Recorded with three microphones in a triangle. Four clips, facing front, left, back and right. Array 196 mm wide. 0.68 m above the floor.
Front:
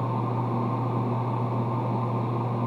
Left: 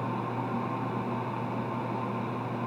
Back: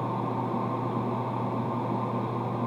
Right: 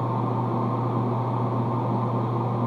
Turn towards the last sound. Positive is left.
No sound to turn to.